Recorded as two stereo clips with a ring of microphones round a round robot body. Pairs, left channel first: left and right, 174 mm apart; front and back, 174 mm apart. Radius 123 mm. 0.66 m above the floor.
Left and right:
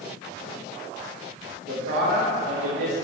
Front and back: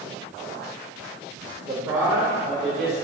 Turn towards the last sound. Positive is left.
turn(degrees=-90)